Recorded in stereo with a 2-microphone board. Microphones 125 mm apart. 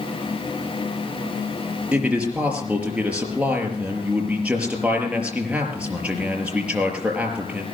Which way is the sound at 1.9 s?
10° right (ahead or behind).